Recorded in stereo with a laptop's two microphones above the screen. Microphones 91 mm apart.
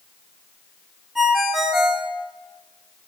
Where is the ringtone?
5° right (ahead or behind), 0.7 m.